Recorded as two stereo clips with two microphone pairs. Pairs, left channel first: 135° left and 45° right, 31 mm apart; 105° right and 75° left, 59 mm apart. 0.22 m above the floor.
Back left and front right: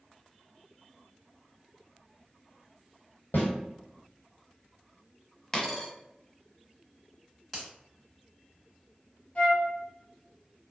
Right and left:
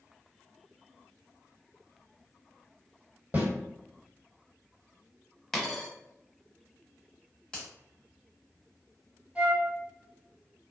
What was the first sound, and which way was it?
A snare drum, 135° left.